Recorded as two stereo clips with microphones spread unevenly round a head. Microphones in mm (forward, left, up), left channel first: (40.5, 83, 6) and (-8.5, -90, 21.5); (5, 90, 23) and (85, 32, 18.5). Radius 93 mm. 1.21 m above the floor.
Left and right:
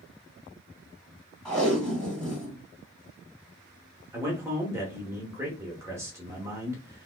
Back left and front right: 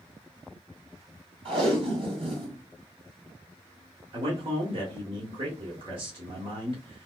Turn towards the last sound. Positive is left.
turn(degrees=-30)